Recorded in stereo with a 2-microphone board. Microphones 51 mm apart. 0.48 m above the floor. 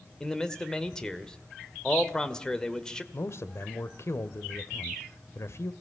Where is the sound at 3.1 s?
60° left (ahead or behind), 1.6 m.